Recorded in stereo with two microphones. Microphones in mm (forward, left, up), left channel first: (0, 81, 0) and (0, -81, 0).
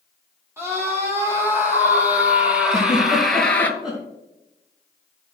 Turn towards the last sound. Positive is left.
turn(degrees=-5)  # may be behind; listen again after turning